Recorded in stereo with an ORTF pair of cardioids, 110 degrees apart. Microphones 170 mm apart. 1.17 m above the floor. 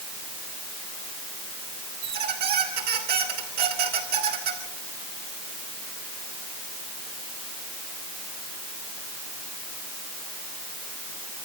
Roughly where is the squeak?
Ahead right.